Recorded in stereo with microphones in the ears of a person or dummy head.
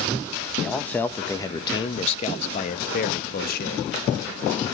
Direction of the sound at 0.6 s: Centre (ahead or behind).